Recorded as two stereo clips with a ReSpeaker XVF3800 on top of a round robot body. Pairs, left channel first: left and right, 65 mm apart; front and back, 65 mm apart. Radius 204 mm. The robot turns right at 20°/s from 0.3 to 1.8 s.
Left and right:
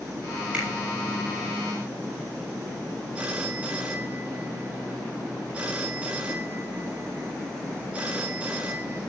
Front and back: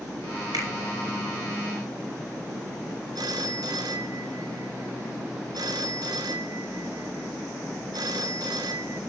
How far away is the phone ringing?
About 1.3 m.